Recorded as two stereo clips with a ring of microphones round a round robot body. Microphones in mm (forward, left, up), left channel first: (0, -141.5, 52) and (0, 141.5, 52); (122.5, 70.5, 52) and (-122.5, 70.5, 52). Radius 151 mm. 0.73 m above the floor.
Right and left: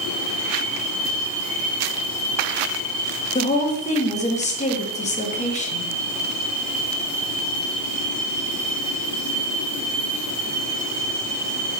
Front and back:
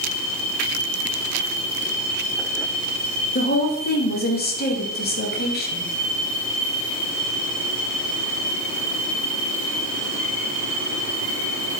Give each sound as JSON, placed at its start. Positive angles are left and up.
{"t": 3.4, "sound": "a woman speaking", "azimuth_deg": -35, "distance_m": 1.1}